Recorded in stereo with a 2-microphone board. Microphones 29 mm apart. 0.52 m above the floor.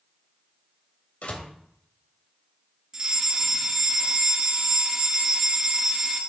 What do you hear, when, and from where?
1.2 s a door slam: 60° left (ahead or behind), 1.4 m
2.9 s a fire alarm: 20° right (ahead or behind), 1.6 m